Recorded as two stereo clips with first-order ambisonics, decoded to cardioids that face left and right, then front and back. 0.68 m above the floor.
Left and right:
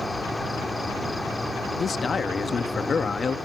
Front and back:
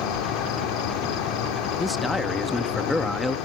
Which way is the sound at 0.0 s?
10° left.